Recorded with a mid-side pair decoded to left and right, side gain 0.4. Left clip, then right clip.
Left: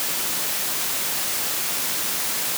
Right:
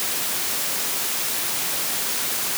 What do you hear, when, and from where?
Only background noise.